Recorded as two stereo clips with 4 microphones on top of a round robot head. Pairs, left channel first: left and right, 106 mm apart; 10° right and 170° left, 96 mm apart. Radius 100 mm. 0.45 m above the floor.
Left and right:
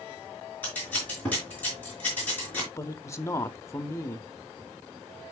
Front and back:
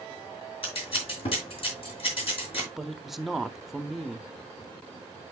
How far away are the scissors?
About 3.5 m.